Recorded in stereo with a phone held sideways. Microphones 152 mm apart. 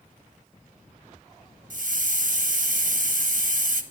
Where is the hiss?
70° right (ahead or behind), 0.9 m.